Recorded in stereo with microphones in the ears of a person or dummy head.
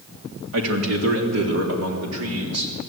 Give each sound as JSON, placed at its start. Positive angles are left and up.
{"t": 0.5, "sound": "a man speaking", "side_deg": -75, "distance_m": 3.0}